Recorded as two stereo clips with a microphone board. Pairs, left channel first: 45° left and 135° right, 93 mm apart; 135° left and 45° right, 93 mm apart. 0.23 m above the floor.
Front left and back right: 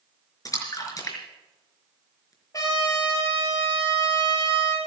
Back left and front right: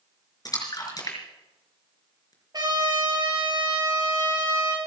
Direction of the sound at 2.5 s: 5° right.